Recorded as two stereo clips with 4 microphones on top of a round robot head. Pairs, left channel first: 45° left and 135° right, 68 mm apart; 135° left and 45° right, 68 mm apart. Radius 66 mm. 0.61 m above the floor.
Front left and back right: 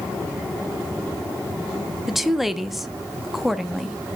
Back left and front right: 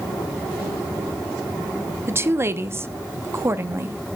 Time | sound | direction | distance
2.1 | a woman speaking | 50° right | 0.8 m